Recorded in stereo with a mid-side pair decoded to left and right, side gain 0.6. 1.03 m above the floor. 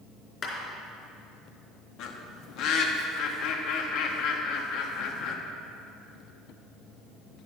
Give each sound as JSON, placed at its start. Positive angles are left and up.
{"t": 0.4, "sound": "a clap", "azimuth_deg": 40, "distance_m": 3.5}
{"t": 2.0, "sound": "a bird", "azimuth_deg": 65, "distance_m": 1.1}